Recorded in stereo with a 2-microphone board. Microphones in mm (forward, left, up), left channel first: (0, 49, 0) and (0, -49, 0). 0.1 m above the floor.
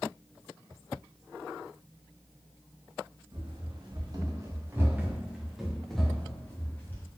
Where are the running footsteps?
60° right (ahead or behind), 1.7 m; by 7.1 s 20° left (ahead or behind), 2 m.